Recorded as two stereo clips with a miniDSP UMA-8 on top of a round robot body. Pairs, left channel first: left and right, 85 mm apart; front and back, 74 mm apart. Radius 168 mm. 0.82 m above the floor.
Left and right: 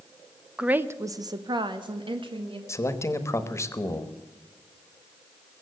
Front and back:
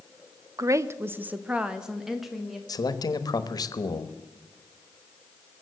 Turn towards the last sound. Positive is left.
turn(degrees=30)